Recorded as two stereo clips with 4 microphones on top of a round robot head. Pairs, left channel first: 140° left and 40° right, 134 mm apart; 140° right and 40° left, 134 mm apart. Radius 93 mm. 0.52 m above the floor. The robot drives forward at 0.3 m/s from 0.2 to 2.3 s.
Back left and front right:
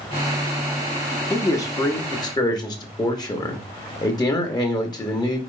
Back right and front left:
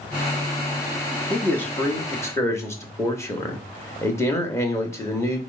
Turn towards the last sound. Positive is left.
turn(degrees=170)